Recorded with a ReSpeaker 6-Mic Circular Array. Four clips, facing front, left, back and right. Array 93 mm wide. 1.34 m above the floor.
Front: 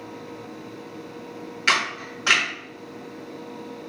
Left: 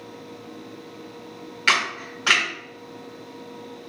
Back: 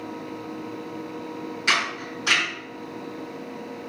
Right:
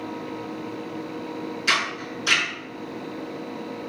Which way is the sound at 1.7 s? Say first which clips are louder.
Left 4 dB, front 2 dB; 55° left.